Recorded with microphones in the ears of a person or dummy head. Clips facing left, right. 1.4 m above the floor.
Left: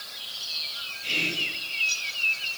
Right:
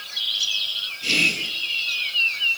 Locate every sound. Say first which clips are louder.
1.0 s whispering: right 5 dB; 55° right (ahead or behind), 1.4 m